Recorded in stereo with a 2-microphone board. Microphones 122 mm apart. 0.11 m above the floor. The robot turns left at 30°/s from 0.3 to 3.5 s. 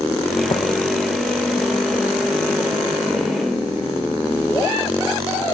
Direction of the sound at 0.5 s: 45° left (ahead or behind).